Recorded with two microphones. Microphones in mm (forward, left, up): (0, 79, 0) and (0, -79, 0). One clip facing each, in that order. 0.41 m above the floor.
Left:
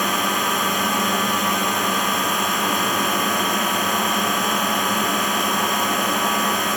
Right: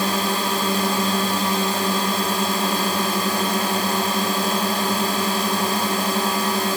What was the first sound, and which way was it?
A drone, 30° right (ahead or behind).